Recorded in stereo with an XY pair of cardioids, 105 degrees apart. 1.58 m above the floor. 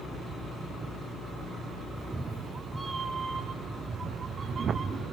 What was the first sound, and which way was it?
A cat meowing, 10° right.